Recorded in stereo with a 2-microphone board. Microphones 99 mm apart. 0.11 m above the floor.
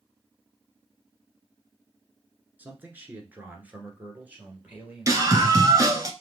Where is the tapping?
No tapping in this recording.